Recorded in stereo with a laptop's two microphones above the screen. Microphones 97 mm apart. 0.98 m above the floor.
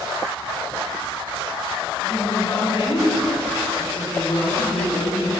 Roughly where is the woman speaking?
Left.